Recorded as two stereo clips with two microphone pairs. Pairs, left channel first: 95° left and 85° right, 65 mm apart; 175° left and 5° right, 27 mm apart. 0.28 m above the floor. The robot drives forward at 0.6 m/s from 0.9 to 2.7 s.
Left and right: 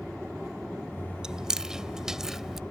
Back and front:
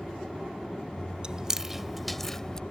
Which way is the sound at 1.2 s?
15° right.